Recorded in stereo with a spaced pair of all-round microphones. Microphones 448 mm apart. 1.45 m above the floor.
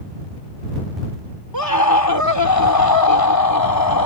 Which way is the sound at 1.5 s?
50° left (ahead or behind).